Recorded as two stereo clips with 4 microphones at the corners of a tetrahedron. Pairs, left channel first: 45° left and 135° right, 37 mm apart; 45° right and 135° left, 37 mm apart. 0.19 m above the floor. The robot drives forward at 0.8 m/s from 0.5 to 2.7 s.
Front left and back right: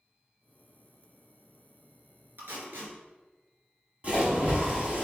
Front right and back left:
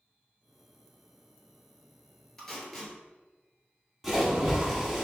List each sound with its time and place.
2.4 s tape being pulled: 125° right, 1.4 m; by 2.9 s 130° right, 1.5 m
4.0 s a splash: 150° right, 1.1 m